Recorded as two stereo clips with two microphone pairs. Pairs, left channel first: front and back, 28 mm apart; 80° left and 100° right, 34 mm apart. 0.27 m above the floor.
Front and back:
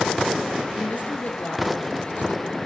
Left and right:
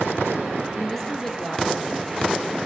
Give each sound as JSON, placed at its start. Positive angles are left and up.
{"t": 0.8, "sound": "a woman speaking", "azimuth_deg": 5, "distance_m": 4.0}